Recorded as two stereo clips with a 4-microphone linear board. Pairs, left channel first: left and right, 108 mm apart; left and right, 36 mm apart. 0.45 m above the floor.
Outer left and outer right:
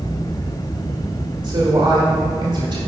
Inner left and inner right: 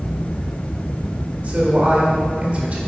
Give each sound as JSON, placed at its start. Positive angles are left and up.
{"t": 1.4, "sound": "a woman speaking", "side_deg": -45, "distance_m": 1.5}